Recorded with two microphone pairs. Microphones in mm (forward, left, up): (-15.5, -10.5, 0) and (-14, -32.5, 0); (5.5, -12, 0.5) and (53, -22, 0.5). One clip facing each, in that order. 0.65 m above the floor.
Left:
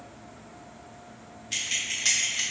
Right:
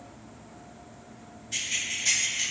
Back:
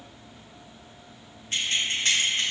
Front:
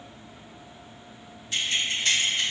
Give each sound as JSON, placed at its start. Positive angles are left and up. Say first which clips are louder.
{"t": 1.5, "sound": "keys jangling", "louder": "left 1 dB, even", "azimuth_deg": 125, "distance_m": 1.3}